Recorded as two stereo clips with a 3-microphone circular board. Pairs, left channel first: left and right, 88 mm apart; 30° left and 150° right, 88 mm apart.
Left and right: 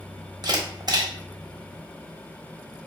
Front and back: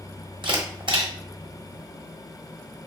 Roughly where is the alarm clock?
No alarm clock in this recording.